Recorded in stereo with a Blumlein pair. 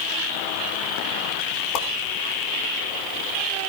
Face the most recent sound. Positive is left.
turn(degrees=35)